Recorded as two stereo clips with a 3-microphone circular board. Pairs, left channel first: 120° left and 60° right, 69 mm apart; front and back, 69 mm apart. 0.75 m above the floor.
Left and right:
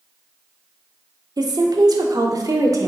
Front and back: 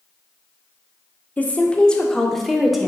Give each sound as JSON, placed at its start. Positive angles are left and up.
{"t": 1.4, "sound": "a woman speaking", "azimuth_deg": -65, "distance_m": 1.7}